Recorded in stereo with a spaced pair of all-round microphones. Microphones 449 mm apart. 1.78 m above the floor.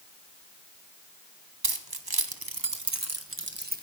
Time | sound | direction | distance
1.6 | keys jangling | 55° right (ahead or behind) | 1.2 m